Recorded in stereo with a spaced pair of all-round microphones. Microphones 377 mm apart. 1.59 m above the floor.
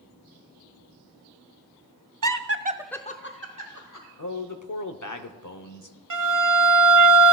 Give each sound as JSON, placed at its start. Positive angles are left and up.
{"t": 2.2, "sound": "laughter", "side_deg": -55, "distance_m": 0.7}
{"t": 4.2, "sound": "a man speaking", "side_deg": 50, "distance_m": 0.8}
{"t": 6.1, "sound": "a violin", "side_deg": -50, "distance_m": 0.7}